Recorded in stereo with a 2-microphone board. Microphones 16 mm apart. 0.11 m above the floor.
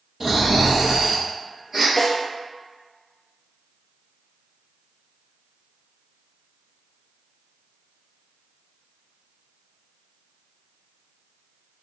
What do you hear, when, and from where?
0.2 s snoring: 25° right (ahead or behind), 1.7 m
2.0 s a snare drum: 35° left (ahead or behind), 1.3 m